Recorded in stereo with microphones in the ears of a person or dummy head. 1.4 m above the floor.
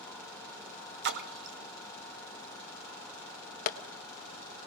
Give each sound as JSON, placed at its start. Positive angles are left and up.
{"t": 1.0, "sound": "a splash", "side_deg": -55, "distance_m": 1.1}
{"t": 3.7, "sound": "tapping", "side_deg": 45, "distance_m": 1.2}